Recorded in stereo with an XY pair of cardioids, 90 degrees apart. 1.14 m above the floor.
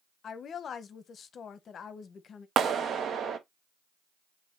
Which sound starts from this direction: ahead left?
A woman speaking, at 0.2 s.